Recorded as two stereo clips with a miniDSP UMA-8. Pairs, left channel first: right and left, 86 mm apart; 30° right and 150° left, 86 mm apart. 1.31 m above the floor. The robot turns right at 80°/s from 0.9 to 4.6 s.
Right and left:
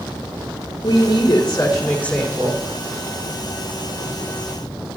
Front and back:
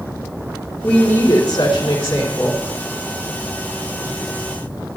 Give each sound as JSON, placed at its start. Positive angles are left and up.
{"t": 0.8, "sound": "a woman speaking", "azimuth_deg": -110, "distance_m": 3.5}